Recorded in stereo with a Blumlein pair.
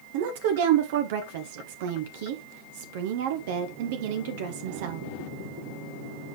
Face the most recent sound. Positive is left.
turn(degrees=-50)